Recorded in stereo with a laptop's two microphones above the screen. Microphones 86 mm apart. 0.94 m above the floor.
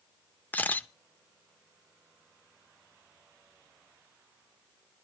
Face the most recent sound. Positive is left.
turn(degrees=20)  # may be behind; listen again after turning